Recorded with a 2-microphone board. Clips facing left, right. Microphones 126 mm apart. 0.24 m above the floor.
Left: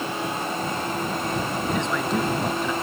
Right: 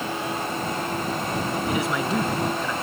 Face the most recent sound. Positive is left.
turn(degrees=15)  # may be behind; listen again after turning